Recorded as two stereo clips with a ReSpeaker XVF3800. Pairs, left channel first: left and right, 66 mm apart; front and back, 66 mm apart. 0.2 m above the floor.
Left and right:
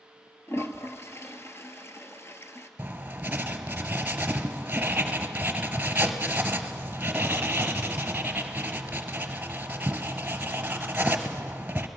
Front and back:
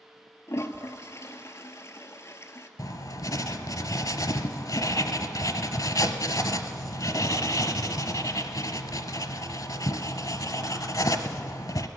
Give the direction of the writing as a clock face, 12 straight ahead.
1 o'clock.